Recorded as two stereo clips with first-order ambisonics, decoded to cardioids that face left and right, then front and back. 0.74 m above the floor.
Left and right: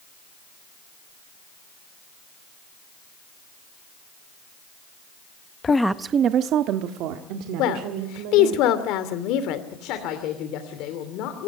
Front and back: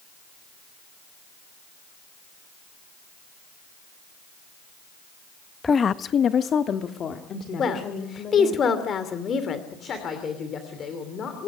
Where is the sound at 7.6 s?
60° left, 2.5 m.